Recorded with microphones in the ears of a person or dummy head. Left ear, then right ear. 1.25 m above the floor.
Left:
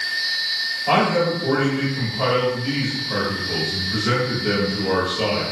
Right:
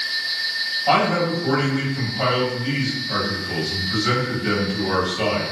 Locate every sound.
0.9 s a man speaking: 40° right (ahead or behind), 1.8 m